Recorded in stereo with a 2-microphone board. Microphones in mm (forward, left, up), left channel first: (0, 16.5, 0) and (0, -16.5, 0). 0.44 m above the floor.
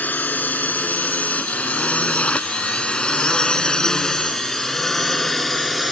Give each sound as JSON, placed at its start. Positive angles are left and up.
{"t": 0.0, "sound": "a drone", "side_deg": 65}